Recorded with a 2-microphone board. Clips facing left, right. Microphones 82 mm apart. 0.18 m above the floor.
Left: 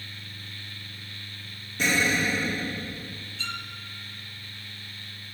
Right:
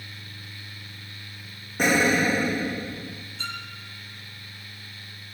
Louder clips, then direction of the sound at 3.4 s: Right 1 dB; 40° right (ahead or behind).